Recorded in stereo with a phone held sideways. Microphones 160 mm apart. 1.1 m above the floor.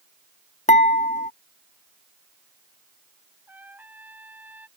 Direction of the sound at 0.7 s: 50° left (ahead or behind).